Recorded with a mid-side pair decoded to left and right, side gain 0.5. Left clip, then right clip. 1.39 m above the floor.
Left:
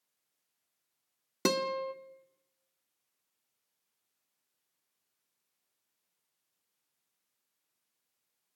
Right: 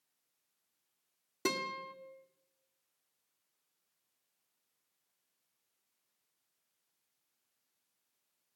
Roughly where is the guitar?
Ahead left.